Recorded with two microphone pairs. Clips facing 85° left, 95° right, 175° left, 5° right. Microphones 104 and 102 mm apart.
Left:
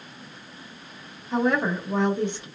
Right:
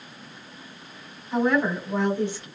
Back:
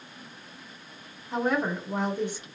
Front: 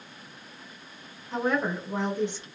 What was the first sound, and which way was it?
A woman speaking, 110° left.